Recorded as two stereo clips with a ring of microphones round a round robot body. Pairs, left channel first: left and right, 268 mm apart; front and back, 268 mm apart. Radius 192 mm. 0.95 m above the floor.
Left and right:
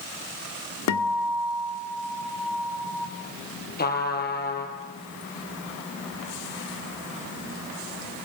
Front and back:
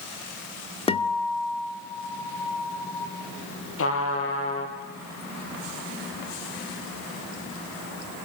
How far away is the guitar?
About 2.5 m.